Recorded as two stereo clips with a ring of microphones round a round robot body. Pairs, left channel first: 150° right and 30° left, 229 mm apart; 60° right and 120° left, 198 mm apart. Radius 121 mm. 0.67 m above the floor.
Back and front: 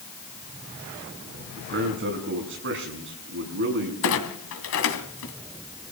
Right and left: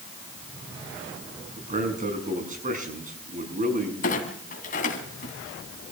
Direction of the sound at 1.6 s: 70° left.